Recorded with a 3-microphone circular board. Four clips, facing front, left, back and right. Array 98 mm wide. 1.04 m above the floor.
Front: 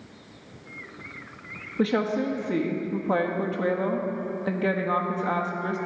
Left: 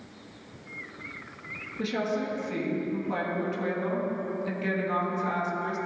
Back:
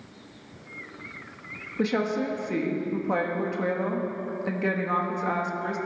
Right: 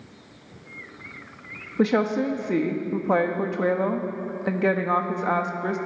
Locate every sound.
1.8 s a woman speaking: 80° right, 1.3 m